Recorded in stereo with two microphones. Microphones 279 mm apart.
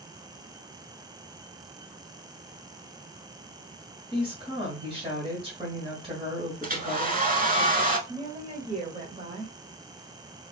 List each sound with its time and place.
4.1 s a woman speaking: 20° right (ahead or behind), 1.5 m
6.6 s a hair dryer: 30° right (ahead or behind), 0.7 m
8.1 s a woman speaking: 25° right (ahead or behind), 1.2 m